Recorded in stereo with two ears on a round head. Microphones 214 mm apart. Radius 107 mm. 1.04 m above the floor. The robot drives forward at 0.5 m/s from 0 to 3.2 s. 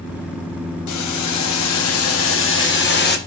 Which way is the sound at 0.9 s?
80° left.